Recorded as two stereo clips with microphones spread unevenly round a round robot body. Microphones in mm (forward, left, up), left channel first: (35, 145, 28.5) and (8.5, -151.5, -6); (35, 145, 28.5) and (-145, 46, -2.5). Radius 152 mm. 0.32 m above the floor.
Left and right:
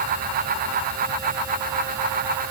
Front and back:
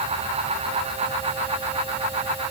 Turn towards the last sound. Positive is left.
No sound to turn to.